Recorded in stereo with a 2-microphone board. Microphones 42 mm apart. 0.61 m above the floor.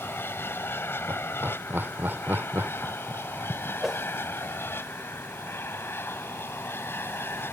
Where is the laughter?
65° right (ahead or behind).